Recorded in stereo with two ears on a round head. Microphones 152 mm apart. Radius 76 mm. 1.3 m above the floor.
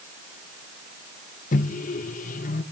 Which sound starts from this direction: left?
A microwave, at 1.5 s.